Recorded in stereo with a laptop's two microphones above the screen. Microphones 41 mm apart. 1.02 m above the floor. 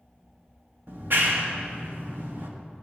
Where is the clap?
55° right (ahead or behind), 1.2 m.